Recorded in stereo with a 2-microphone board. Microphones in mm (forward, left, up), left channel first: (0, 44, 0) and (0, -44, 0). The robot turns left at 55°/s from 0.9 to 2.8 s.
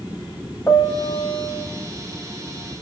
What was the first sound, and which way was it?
A piano, 145° left.